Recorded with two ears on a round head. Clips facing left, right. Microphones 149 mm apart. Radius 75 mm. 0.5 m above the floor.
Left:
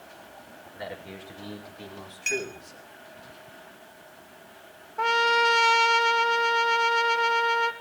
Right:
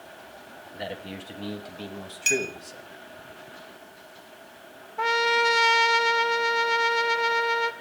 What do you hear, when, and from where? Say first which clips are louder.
0.7 s a man speaking: right 3 dB; 35° right (ahead or behind), 4 m; by 2.9 s 45° right (ahead or behind), 3 m
2.3 s a clink: right 4 dB; 45° right (ahead or behind), 2.5 m
5.0 s a trumpet: even; 5° right (ahead or behind), 0.9 m